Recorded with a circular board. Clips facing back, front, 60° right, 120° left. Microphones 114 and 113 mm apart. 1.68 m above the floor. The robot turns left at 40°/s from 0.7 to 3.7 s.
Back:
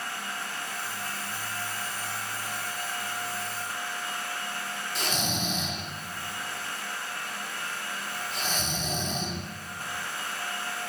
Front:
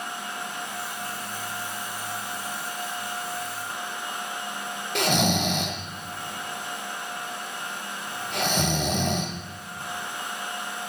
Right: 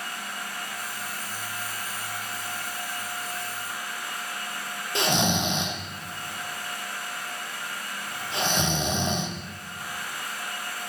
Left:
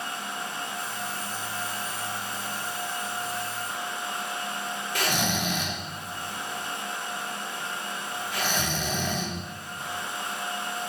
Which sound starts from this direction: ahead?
Snoring, at 5.0 s.